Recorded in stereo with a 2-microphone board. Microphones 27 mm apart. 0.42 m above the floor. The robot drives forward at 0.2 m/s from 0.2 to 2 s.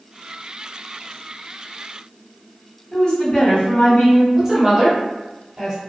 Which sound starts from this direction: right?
A woman speaking, at 4.3 s.